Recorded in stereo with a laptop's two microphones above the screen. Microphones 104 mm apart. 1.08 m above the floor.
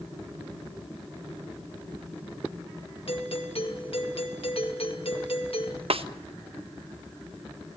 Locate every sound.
3.1 s a doorbell: 65° left (ahead or behind), 2 m
5.9 s a snare drum: 65° right (ahead or behind), 1.2 m